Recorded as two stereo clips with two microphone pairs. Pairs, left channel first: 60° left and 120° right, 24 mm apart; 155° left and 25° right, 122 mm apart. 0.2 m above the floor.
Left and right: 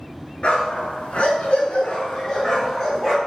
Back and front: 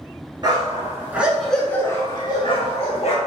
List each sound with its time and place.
0.4 s a dog barking: 20° left, 1.1 m; by 3.2 s 130° left, 1.4 m